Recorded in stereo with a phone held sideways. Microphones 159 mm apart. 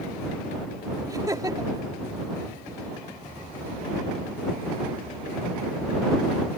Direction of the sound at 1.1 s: 25° right (ahead or behind).